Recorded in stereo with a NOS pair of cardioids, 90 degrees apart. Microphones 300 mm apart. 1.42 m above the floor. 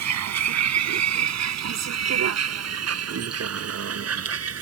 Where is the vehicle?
65° right; by 4.6 s 50° right.